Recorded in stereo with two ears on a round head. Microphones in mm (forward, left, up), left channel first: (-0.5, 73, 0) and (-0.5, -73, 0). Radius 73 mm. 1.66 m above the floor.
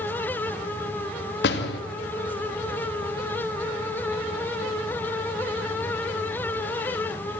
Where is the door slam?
80° left, 2.5 m.